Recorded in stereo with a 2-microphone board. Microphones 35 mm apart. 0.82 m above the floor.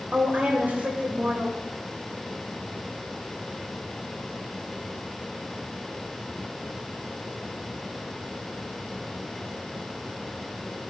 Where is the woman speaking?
50° right (ahead or behind), 3 m.